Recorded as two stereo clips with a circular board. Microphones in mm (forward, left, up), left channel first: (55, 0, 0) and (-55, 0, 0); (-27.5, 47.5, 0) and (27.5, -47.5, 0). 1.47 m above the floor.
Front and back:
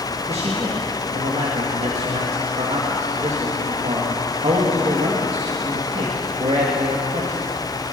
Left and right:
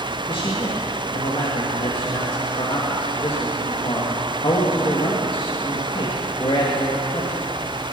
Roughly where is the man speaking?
Behind.